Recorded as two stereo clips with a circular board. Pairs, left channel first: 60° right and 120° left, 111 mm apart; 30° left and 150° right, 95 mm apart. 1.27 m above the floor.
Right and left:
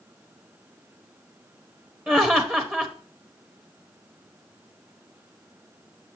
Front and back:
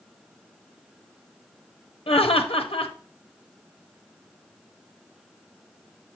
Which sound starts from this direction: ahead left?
Laughter, at 2.1 s.